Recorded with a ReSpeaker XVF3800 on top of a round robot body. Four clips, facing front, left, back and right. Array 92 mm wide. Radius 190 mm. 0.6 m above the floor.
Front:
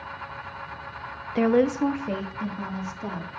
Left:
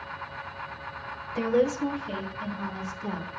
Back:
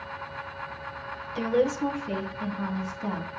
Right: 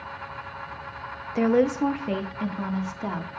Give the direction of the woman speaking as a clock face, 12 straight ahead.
1 o'clock.